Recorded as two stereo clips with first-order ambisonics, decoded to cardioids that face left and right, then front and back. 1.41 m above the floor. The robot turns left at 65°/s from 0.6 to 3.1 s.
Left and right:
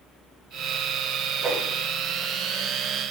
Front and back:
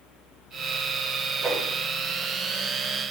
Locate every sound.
1.4 s a whoosh: 120° right, 2.0 m; by 1.6 s 135° right, 2.0 m